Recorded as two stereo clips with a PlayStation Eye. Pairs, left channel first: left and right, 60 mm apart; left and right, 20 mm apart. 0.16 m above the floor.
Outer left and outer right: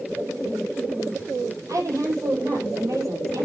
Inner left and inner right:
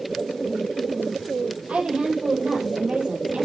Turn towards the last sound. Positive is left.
turn(degrees=-60)  # may be behind; listen again after turning